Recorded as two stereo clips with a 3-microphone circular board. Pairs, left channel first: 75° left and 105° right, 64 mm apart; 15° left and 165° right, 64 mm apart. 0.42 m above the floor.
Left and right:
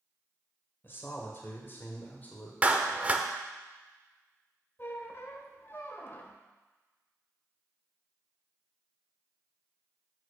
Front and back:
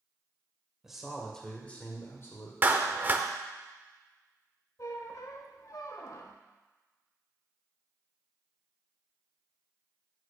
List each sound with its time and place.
0.8 s a man speaking: 115° left, 2.0 m; by 2.5 s 15° left, 1.7 m
2.6 s a clap: 145° right, 0.7 m
4.8 s a squeak: 30° left, 0.9 m